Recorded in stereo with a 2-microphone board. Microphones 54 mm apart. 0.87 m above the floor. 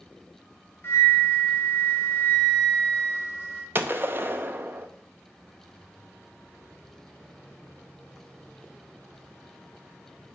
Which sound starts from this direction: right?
A gunshot, at 3.8 s.